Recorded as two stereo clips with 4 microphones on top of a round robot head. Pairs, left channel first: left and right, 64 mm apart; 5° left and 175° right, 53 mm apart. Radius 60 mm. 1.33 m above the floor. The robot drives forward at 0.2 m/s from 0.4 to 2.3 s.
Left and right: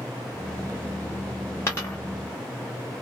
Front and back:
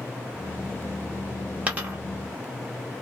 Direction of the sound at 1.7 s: 140° left.